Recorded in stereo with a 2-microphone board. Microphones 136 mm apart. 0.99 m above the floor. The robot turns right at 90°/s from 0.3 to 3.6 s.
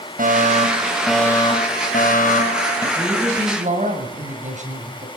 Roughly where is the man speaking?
Behind.